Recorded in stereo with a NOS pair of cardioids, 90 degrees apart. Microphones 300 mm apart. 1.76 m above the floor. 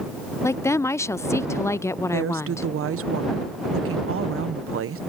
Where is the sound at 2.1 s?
50° right.